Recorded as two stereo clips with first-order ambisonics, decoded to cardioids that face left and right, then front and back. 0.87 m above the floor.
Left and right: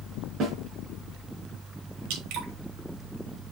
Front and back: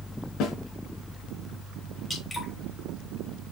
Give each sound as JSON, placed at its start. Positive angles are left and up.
{"t": 0.4, "sound": "a snare drum", "azimuth_deg": -35, "distance_m": 4.0}
{"t": 2.1, "sound": "dripping", "azimuth_deg": -85, "distance_m": 3.5}